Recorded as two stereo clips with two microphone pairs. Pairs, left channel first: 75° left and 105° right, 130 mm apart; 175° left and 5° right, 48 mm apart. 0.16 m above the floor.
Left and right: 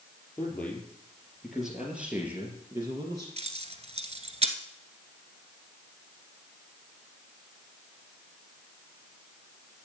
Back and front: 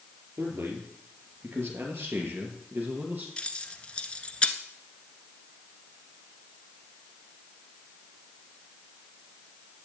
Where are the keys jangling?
125° right, 1.3 m.